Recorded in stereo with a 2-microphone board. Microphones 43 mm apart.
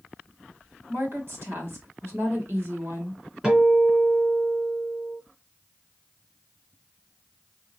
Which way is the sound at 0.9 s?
60° right (ahead or behind).